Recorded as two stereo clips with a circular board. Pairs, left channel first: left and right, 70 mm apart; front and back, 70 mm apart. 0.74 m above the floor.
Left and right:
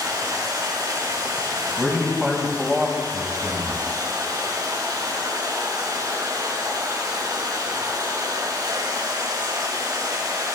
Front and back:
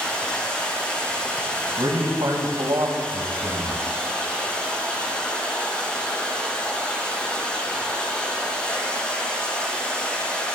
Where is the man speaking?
175° right, 4 m.